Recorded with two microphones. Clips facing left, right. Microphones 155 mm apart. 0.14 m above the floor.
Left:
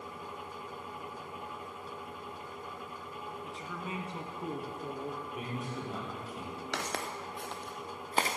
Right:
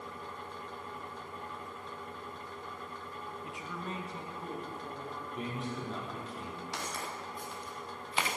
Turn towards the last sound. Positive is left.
turn(degrees=35)  # may be behind; listen again after turning